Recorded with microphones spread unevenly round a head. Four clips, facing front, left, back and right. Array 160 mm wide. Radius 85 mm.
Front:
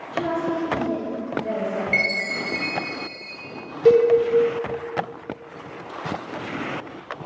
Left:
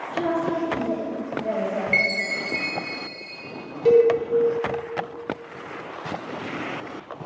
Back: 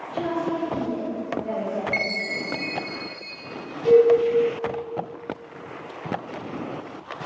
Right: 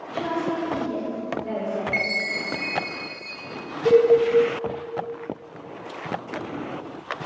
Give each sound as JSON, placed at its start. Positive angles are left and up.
{"t": 0.1, "sound": "a woman speaking", "azimuth_deg": 95, "distance_m": 1.4}
{"t": 1.9, "sound": "a chime", "azimuth_deg": 85, "distance_m": 0.6}
{"t": 3.9, "sound": "a cowbell", "azimuth_deg": 10, "distance_m": 0.5}